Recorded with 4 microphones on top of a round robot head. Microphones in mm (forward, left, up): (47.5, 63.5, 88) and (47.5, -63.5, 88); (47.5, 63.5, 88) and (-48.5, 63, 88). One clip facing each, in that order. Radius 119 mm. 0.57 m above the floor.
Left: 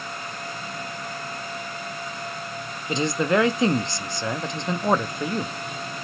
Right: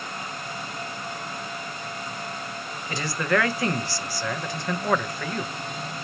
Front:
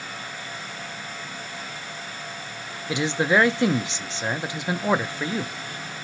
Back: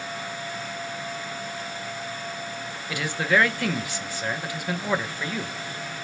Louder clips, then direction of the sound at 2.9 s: Left 4 dB, front 3 dB; 45° left.